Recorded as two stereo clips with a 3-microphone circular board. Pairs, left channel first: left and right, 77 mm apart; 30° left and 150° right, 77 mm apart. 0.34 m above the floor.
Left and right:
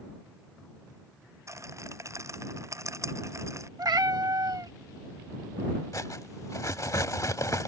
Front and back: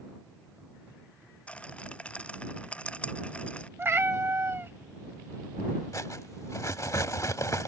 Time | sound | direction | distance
1.5 | a rattle | 45° right | ?
3.8 | a cat meowing | 95° right | ?
5.9 | cutlery clinking | 60° left | ?